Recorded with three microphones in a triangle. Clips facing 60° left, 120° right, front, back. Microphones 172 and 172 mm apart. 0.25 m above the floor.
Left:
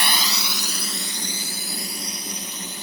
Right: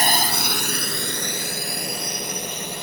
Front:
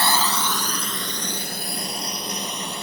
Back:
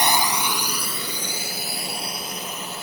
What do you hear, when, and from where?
0.0 s a drone: 115° right; by 2.8 s 90° right